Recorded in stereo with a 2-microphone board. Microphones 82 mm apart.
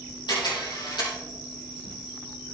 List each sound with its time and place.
0.3 s a camera shutter: 60° left (ahead or behind), 5 m